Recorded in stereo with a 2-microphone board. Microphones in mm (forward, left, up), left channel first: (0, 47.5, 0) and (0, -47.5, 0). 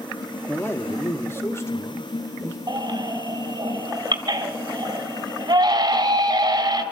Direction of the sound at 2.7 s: 45° right (ahead or behind).